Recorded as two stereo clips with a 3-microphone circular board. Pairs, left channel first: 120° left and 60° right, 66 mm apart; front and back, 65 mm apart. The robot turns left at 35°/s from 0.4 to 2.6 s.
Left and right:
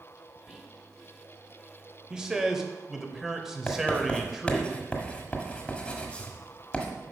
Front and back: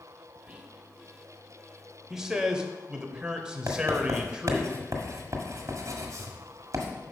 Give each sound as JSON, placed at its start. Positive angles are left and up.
{"t": 0.5, "sound": "whispering", "azimuth_deg": -135, "distance_m": 1.0}
{"t": 2.1, "sound": "a man speaking", "azimuth_deg": -115, "distance_m": 0.9}
{"t": 3.7, "sound": "writing", "azimuth_deg": -170, "distance_m": 1.5}